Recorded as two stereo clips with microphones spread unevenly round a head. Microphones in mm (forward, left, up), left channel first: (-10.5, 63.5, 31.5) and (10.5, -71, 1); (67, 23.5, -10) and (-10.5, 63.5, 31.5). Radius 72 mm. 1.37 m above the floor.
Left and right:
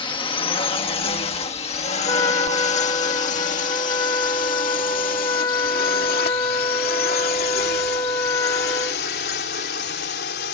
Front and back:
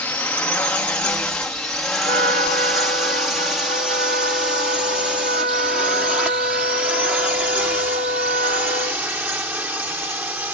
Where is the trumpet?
165° left.